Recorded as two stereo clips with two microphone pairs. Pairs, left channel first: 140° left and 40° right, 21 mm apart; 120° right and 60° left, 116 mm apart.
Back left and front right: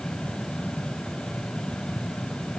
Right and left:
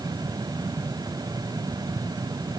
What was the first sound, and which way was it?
Only background noise.